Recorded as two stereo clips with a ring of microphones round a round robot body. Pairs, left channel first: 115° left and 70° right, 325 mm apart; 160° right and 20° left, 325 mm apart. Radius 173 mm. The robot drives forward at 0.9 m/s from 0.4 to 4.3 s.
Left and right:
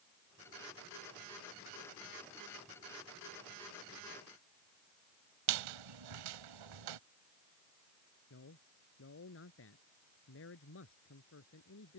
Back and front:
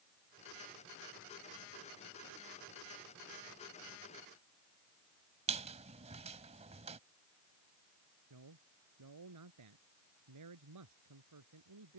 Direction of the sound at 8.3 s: 60° left.